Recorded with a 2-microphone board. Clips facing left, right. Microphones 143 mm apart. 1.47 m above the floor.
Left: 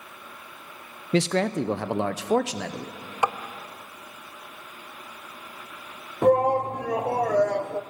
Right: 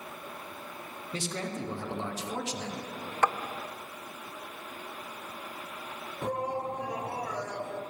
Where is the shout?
65° left (ahead or behind), 1.0 m.